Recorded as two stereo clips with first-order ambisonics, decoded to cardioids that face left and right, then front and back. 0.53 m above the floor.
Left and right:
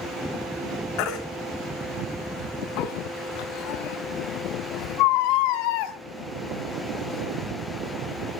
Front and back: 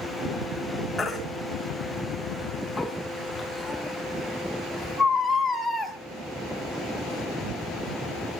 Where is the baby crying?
85° left, 2.5 m.